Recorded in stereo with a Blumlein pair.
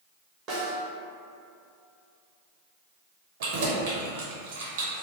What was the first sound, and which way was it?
A snare drum, 25° right.